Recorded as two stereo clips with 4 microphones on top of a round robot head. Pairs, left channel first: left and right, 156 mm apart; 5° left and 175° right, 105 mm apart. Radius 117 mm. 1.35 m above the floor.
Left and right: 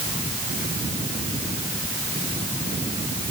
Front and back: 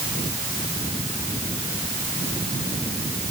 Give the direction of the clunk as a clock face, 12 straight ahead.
I don't hear a clunk.